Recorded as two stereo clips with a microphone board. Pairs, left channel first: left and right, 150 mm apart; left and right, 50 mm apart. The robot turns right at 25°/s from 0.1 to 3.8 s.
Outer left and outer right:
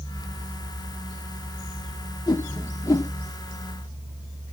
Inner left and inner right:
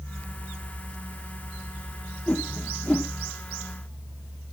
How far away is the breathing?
No breathing in this recording.